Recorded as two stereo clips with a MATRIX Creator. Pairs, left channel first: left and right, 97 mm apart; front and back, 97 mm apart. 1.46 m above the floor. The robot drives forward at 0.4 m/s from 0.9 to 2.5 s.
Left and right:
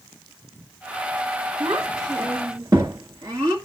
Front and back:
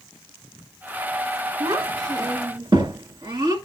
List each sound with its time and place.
1.6 s a child speaking: 145° right, 1.6 m; by 3.5 s 150° right, 1.9 m